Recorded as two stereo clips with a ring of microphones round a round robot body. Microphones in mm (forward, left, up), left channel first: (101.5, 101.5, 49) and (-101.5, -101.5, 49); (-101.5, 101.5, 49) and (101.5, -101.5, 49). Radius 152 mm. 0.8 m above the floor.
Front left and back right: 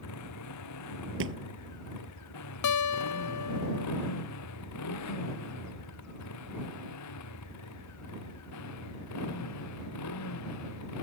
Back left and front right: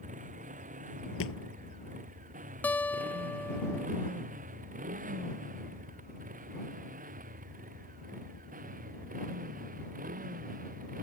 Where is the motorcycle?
20° left; by 11.0 s 15° left.